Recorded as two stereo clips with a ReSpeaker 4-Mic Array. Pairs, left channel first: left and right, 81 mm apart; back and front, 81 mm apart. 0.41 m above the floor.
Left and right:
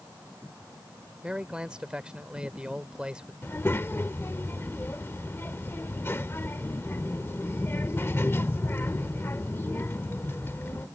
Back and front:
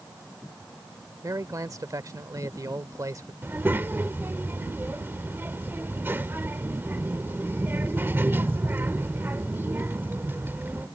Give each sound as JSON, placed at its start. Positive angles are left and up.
{"t": 1.2, "sound": "a man speaking", "azimuth_deg": -15}
{"t": 3.4, "sound": "a child speaking", "azimuth_deg": 50}